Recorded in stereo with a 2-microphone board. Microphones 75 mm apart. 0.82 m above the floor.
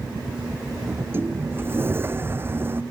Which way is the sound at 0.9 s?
30° right (ahead or behind).